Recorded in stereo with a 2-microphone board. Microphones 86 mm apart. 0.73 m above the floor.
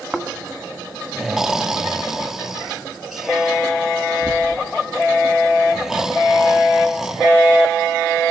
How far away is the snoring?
About 1.2 m.